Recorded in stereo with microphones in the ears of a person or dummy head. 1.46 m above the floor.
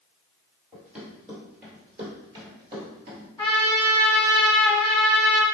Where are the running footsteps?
Centre (ahead or behind), 2.0 m; by 3.3 s 30° right (ahead or behind), 1.7 m.